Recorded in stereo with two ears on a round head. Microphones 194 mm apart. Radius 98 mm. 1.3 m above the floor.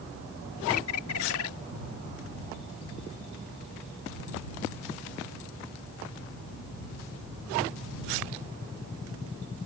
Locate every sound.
0.7 s a bird: 70° left (ahead or behind)